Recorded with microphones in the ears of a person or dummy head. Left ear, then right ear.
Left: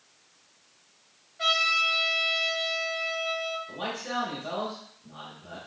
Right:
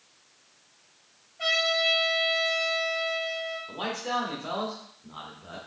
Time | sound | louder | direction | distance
1.4 | a trumpet | left 1 dB | 25° left (ahead or behind) | 2.5 m
3.7 | a man speaking | right 2 dB | 40° right (ahead or behind) | 1.3 m